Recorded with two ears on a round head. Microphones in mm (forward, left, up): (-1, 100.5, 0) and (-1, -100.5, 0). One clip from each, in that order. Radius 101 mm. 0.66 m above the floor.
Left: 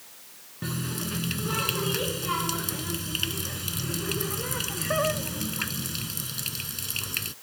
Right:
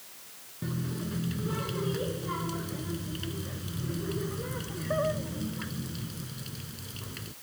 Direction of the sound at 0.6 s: 65° left (ahead or behind).